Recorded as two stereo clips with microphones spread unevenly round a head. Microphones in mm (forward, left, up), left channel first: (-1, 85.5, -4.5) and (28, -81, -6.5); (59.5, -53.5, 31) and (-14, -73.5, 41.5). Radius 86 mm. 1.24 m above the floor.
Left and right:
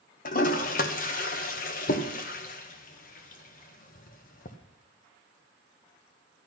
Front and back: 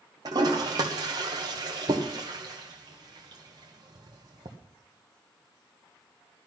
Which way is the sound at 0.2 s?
145° left.